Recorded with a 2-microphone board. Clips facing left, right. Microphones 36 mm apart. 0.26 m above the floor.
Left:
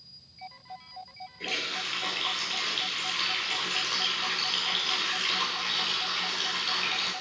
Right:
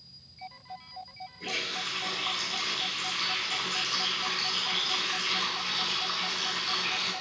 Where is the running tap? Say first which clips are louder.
Left 1 dB; 60° left (ahead or behind), 4 m.